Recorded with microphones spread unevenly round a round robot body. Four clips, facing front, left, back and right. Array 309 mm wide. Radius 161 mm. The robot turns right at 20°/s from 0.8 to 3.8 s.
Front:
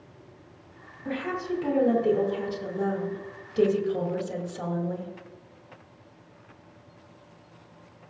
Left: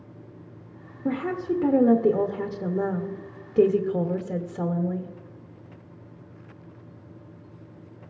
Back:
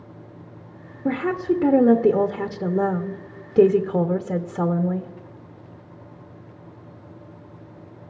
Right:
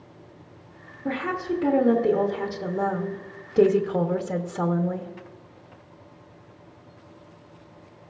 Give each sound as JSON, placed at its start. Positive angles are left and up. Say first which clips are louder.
{"t": 1.1, "sound": "a woman speaking", "louder": "left 1 dB, back 8 dB", "azimuth_deg": 170, "distance_m": 0.8}